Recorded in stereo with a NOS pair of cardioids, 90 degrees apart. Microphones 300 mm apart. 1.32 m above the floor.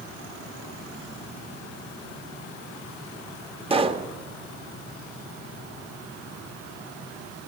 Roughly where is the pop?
Ahead.